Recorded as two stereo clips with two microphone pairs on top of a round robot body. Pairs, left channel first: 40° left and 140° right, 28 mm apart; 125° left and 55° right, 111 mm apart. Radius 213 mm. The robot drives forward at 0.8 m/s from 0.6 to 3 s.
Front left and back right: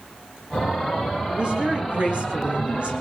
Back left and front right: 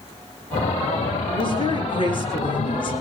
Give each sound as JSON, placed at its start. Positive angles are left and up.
{"t": 1.3, "sound": "a woman speaking", "azimuth_deg": 170, "distance_m": 7.5}